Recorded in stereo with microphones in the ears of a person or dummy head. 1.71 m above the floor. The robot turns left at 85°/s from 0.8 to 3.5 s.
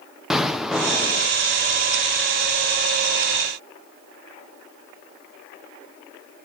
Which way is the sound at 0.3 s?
Straight behind.